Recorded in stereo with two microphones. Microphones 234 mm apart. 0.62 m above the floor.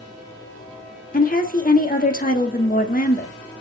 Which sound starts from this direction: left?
A woman speaking, at 1.1 s.